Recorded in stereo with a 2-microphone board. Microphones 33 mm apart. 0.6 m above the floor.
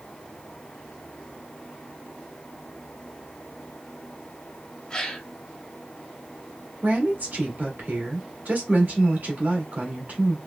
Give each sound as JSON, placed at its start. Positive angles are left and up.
{"t": 4.9, "sound": "a gasp", "side_deg": 25, "distance_m": 1.2}
{"t": 6.8, "sound": "a woman speaking", "side_deg": -65, "distance_m": 1.6}